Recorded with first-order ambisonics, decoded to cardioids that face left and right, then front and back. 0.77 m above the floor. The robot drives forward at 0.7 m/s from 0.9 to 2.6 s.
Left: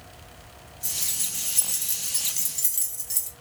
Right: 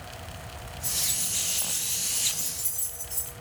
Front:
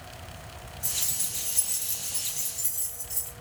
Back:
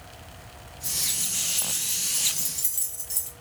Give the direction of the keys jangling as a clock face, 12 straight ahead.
11 o'clock.